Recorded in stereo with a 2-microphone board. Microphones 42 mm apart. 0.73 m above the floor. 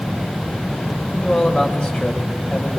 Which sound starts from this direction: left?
A man speaking, at 1.1 s.